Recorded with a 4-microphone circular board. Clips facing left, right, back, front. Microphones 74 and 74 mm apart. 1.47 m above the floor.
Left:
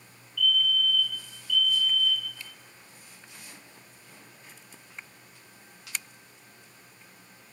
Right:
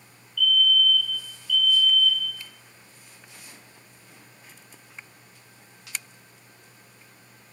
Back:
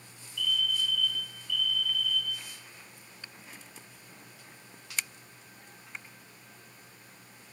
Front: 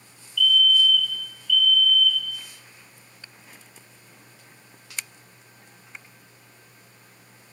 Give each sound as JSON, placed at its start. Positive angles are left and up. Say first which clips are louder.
{"t": 0.4, "sound": "a fire alarm", "louder": "right 4 dB, front 11 dB", "azimuth_deg": -120, "distance_m": 2.0}